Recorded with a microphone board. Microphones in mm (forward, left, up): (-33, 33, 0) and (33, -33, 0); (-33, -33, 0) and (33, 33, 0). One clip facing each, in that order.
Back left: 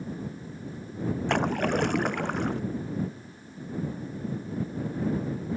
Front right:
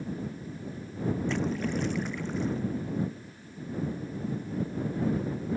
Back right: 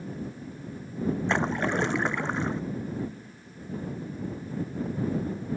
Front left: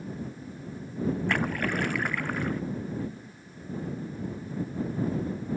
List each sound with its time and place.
1.3 s a splash: 160° left